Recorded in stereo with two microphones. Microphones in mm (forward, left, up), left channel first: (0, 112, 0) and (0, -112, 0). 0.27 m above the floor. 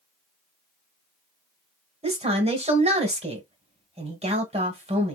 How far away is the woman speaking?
About 1.3 m.